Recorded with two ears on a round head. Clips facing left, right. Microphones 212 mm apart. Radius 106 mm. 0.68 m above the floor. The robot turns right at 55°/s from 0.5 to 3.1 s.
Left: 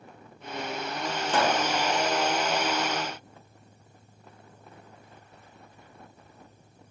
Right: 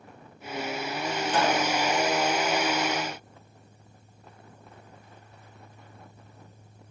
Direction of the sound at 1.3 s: 55° left (ahead or behind).